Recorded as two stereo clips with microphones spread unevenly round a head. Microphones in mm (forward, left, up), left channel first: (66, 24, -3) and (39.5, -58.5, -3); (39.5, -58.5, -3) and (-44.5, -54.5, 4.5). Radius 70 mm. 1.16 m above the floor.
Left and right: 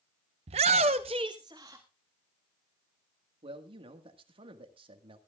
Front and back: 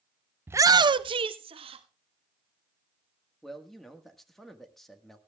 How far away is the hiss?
I don't hear a hiss.